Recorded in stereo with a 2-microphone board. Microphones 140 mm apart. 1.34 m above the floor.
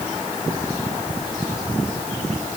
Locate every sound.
Only background noise.